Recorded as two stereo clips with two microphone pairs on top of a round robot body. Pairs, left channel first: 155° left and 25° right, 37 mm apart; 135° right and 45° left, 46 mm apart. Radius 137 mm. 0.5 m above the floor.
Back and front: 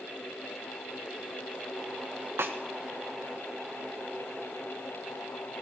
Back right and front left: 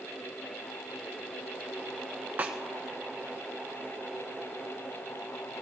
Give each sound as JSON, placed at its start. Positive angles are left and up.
{"t": 2.4, "sound": "a snare drum", "azimuth_deg": -15, "distance_m": 1.4}